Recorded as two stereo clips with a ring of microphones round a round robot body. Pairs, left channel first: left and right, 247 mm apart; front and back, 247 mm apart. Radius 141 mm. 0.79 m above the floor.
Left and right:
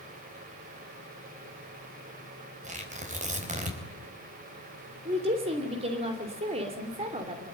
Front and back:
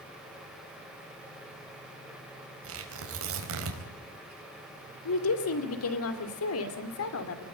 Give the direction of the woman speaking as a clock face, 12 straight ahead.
1 o'clock.